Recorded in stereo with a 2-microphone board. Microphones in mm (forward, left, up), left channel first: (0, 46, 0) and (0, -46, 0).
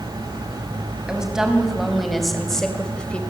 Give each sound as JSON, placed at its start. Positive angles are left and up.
{"t": 1.1, "sound": "a woman speaking", "side_deg": -10, "distance_m": 5.0}